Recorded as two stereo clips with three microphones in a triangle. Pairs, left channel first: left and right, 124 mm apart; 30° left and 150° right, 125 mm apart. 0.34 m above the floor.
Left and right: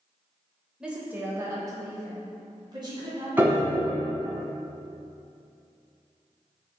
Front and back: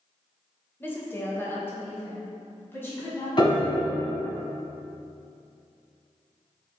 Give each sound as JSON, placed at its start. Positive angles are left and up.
{"t": 0.8, "sound": "a woman speaking", "azimuth_deg": -10, "distance_m": 0.9}
{"t": 3.4, "sound": "a piano", "azimuth_deg": -20, "distance_m": 1.1}